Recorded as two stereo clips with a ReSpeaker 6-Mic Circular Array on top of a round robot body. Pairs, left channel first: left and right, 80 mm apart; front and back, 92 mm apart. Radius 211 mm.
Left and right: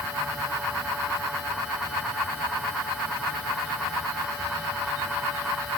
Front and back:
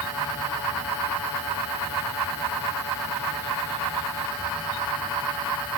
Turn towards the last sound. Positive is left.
No sound to turn to.